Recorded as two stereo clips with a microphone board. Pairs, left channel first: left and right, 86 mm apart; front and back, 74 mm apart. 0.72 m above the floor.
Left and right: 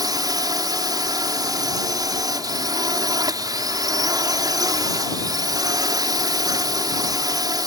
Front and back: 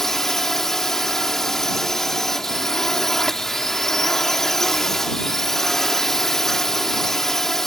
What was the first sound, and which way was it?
A drone, 85° right.